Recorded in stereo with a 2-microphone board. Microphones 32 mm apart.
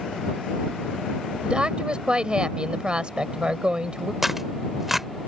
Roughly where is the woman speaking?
Right.